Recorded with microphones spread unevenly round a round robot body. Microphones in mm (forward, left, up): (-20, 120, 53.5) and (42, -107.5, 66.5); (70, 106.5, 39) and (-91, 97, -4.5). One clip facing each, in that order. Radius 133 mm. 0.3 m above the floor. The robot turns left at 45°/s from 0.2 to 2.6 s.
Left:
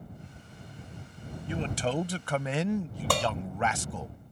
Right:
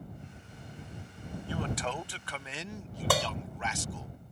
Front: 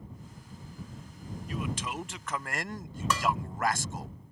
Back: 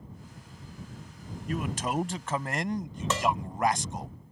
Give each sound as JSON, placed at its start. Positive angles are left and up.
{"t": 1.5, "sound": "a man speaking", "azimuth_deg": 175}
{"t": 3.1, "sound": "dishes clattering", "azimuth_deg": -165}